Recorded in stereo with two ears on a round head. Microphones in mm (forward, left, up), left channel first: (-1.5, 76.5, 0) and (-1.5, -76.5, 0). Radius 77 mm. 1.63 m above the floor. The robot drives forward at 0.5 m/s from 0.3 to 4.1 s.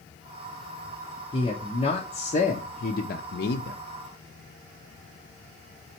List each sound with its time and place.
1.3 s a man speaking: 30° left (ahead or behind), 1.2 m; by 3.8 s 60° left (ahead or behind), 0.7 m